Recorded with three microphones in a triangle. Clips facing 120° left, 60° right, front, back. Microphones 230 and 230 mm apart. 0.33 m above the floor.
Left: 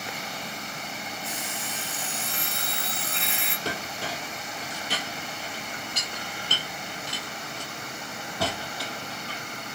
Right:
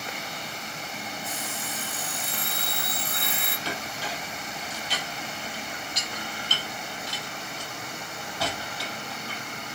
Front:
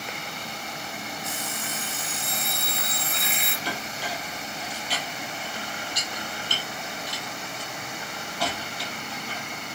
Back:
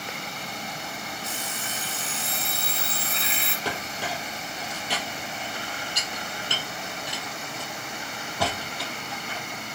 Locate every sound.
1.2 s an alarm clock: 125° left, 3.5 m
3.6 s a clink: 150° left, 5 m